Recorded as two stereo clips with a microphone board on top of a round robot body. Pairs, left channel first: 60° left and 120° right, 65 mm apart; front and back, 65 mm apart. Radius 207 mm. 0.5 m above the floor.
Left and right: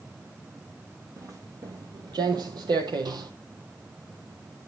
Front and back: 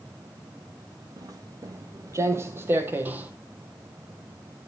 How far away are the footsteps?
About 1.2 m.